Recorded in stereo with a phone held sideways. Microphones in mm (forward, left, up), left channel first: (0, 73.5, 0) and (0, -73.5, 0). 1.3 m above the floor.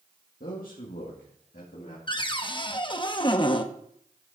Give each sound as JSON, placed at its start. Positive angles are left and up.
{"t": 0.4, "sound": "a man speaking", "side_deg": 80, "distance_m": 1.8}
{"t": 2.1, "sound": "a cupboard door", "side_deg": 35, "distance_m": 0.7}